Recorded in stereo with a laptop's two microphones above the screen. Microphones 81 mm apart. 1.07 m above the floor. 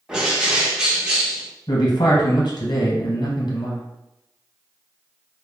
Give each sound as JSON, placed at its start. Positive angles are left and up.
{"t": 0.1, "sound": "a bird", "side_deg": -10, "distance_m": 0.7}
{"t": 1.7, "sound": "a man speaking", "side_deg": 65, "distance_m": 0.8}